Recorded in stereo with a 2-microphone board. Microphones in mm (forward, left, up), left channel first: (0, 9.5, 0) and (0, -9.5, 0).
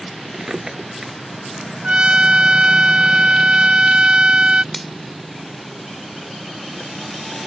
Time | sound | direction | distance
0.3 | a drawer | 35° right (ahead or behind) | ?
1.8 | a trumpet | 65° right (ahead or behind) | ?
4.7 | a finger snap | 5° left (ahead or behind) | ?